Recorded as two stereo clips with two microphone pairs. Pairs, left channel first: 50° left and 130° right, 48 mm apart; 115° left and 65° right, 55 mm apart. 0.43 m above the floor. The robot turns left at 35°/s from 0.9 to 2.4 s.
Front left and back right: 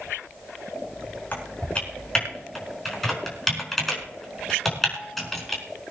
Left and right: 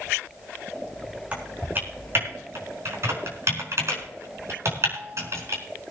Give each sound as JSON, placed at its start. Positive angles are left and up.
{"t": 1.3, "sound": "typing on a keyboard", "azimuth_deg": 0, "distance_m": 5.0}